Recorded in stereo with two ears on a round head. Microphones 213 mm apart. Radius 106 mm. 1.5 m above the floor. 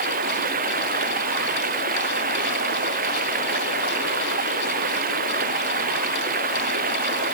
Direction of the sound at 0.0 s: 40° right (ahead or behind).